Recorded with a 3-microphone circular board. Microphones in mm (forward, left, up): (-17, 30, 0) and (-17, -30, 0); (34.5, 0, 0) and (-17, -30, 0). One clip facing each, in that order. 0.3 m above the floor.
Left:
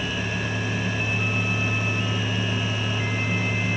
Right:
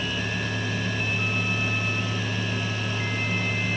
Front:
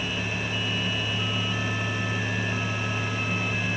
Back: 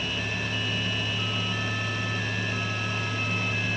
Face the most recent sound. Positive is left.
No sound to turn to.